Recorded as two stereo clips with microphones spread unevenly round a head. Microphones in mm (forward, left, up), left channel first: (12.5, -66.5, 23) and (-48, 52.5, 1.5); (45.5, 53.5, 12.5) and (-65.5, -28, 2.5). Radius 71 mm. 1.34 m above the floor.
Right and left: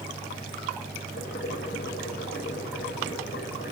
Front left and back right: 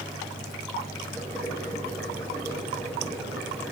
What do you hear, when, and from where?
1.1 s boiling: 40° right, 5 m